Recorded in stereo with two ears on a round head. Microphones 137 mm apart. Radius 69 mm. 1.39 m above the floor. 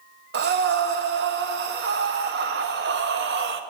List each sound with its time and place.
0.3 s breathing: 80° right, 0.9 m